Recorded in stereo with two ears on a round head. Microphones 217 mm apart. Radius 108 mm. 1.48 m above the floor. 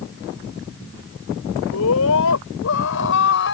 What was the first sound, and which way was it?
A scream, 70° left (ahead or behind).